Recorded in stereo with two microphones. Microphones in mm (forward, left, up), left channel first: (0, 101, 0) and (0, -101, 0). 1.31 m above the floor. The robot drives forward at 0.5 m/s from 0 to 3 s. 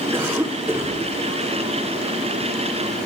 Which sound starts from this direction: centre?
A cough, at 0.1 s.